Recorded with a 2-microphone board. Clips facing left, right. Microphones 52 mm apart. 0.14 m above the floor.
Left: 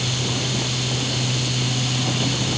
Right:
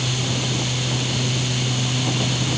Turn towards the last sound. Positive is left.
No sound to turn to.